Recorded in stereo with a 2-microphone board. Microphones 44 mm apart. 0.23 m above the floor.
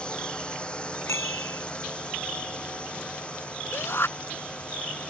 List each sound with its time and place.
0.0 s a drone: 25° left (ahead or behind)
1.1 s a bicycle bell: 85° left
3.7 s a shout: 60° left (ahead or behind)